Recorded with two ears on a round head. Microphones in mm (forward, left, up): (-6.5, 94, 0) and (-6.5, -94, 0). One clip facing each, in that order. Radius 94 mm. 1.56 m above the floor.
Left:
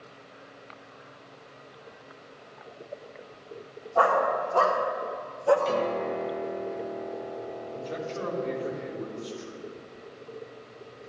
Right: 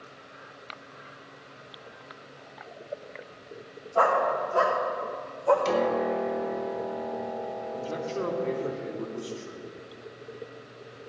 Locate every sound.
4.0 s a dog barking: 45° right (ahead or behind), 2.5 m; by 5.5 s 25° left (ahead or behind), 1.6 m
5.7 s a piano: 80° right, 1.2 m
7.7 s a man speaking: 80° right, 3.5 m